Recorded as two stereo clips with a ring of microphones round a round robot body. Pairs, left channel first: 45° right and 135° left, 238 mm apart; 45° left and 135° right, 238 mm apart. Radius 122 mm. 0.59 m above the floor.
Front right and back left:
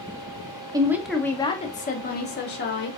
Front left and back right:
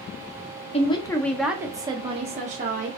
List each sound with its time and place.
0.7 s a woman speaking: 75° left, 0.8 m; by 2.9 s 80° right, 1.4 m